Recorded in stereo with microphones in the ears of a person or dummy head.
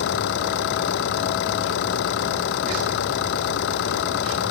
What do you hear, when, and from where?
0.0 s an engine running: 55° left (ahead or behind)